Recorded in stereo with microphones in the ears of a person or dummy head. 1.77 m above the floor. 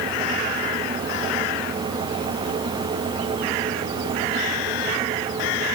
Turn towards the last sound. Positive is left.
No sound to turn to.